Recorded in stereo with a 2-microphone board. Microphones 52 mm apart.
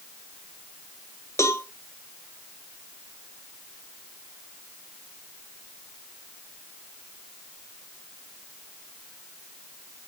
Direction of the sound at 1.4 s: 70° left (ahead or behind).